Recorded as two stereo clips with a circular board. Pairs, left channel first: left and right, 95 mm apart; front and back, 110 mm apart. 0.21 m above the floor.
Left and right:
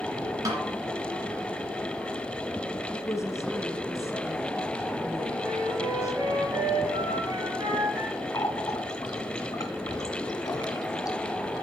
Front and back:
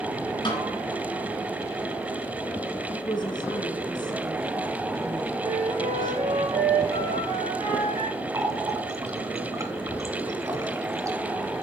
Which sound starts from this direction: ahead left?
A woman speaking, at 2.9 s.